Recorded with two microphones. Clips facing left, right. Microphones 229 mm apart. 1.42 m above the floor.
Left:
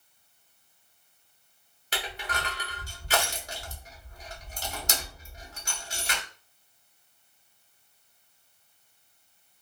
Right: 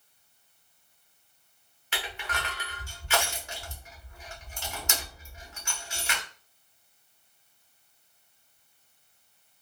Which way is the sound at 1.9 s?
40° left (ahead or behind).